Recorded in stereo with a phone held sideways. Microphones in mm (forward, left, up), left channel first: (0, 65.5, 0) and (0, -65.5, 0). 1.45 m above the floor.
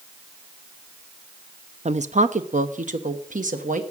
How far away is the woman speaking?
About 0.7 m.